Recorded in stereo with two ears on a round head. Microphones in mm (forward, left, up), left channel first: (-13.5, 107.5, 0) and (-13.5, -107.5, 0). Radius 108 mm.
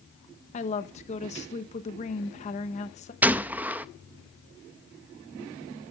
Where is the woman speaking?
30° left (ahead or behind), 1.0 m.